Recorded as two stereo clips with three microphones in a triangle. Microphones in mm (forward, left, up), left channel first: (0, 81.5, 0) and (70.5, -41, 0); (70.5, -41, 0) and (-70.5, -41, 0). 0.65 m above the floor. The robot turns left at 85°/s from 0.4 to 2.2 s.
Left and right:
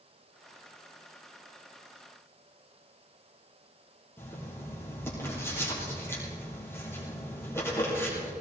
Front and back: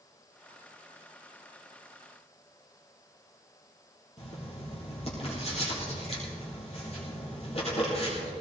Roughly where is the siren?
No siren in this recording.